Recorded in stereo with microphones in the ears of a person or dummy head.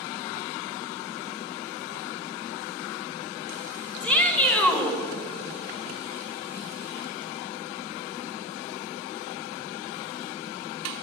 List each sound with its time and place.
4.0 s a shout: 10° left (ahead or behind), 1.7 m